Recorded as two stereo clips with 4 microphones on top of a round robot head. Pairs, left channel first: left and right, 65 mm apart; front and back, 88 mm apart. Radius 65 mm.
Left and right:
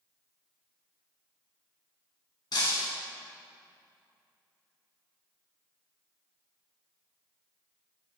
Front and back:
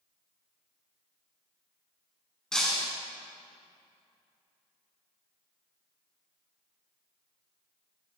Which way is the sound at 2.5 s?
85° left.